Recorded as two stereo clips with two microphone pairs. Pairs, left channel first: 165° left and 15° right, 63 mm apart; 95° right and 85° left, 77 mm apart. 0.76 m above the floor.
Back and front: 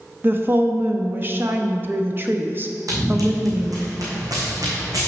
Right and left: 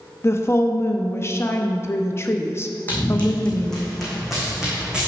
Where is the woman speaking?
55° right, 0.7 m.